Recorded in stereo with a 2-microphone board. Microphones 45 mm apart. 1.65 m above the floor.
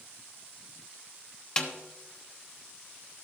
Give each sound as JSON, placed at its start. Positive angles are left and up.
{"t": 1.6, "sound": "a snare drum", "side_deg": 20, "distance_m": 1.1}